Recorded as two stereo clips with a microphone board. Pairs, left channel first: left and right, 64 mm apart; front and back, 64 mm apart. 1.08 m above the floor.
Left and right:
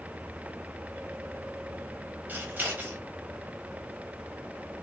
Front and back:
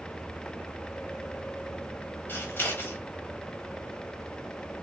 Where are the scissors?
45° right, 1.1 m.